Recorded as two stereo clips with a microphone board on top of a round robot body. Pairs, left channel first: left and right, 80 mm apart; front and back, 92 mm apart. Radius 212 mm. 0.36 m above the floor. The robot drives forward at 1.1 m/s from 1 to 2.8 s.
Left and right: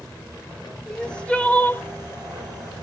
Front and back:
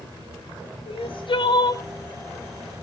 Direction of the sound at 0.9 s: 10° left.